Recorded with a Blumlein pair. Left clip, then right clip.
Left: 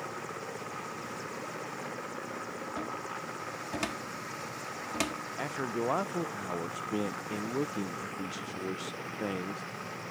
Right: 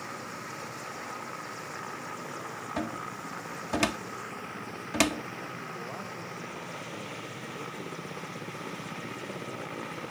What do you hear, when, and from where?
2.8 s a cupboard door: 70° right
5.4 s a man speaking: 35° left